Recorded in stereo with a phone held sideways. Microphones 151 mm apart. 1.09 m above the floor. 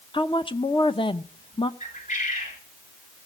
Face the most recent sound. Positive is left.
turn(degrees=55)  # may be behind; listen again after turning